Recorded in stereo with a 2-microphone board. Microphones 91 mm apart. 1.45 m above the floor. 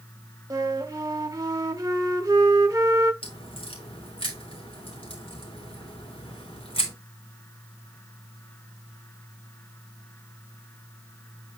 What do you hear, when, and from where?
0.5 s a flute: 35° right (ahead or behind), 1.2 m
3.2 s a crack: 70° left (ahead or behind), 3 m